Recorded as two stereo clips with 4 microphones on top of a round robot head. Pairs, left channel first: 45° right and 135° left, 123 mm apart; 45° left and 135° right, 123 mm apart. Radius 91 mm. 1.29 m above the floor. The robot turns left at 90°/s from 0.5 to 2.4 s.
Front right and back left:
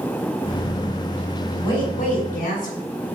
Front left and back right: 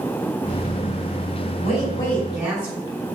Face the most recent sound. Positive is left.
turn(degrees=-55)